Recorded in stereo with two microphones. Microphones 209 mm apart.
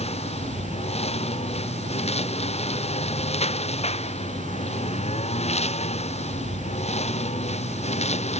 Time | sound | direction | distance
0.0 | a lawn mower | 30° left (ahead or behind) | ?